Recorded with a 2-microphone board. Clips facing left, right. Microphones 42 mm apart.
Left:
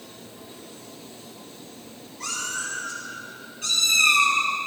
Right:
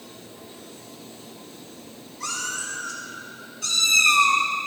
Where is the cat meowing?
50° left (ahead or behind), 3 m; by 4.4 s 40° left (ahead or behind), 2 m.